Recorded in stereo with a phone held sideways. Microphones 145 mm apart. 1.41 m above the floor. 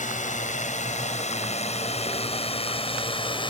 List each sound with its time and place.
0.0 s a drone: 60° left (ahead or behind); by 3.5 s 35° left (ahead or behind)